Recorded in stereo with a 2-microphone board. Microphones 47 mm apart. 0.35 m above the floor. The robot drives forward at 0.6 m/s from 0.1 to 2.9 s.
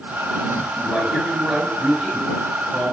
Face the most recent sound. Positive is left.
turn(degrees=-20)  # may be behind; listen again after turning